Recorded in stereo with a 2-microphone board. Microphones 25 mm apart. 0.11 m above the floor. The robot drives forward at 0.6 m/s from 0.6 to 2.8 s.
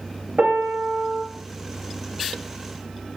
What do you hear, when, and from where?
0.4 s a piano: 70° right (ahead or behind), 4 m; by 1.2 s 75° right (ahead or behind), 3.5 m